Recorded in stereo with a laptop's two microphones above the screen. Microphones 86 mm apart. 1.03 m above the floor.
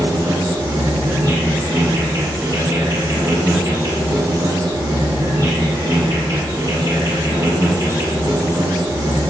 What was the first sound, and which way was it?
An insect, 45° right (ahead or behind).